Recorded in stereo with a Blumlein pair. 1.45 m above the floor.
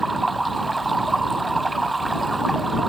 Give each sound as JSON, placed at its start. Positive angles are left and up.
{"t": 0.0, "sound": "running water", "azimuth_deg": -10}